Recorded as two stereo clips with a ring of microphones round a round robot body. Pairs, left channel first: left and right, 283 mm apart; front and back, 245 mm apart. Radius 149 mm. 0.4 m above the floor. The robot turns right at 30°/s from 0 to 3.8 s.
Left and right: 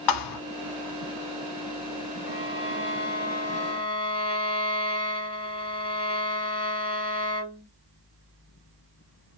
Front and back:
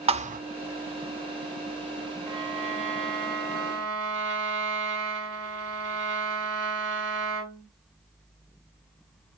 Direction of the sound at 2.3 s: 115° left.